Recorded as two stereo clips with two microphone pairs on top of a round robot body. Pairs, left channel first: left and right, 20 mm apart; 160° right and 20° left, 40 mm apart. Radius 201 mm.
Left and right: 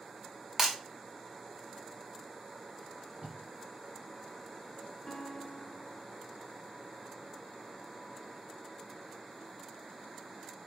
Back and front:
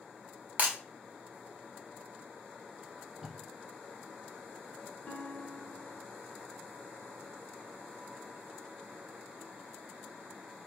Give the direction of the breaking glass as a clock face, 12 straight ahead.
1 o'clock.